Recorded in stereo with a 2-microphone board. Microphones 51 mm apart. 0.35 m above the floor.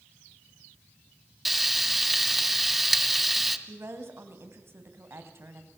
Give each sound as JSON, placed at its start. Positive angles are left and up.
{"t": 1.4, "sound": "frying", "side_deg": -5, "distance_m": 1.7}
{"t": 3.7, "sound": "a woman speaking", "side_deg": -55, "distance_m": 3.0}